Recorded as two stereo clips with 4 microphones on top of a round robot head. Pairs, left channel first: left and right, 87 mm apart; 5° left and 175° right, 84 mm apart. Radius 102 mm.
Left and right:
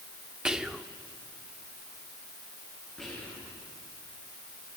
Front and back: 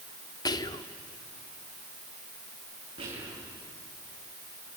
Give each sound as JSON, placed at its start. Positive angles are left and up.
{"t": 0.5, "sound": "whispering", "azimuth_deg": -10, "distance_m": 1.5}
{"t": 3.0, "sound": "whispering", "azimuth_deg": 170, "distance_m": 7.0}